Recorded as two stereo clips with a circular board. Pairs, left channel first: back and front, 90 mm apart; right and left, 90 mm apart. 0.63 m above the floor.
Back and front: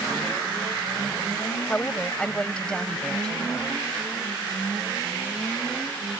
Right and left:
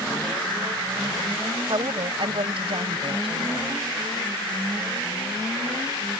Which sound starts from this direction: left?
A woman speaking, at 1.7 s.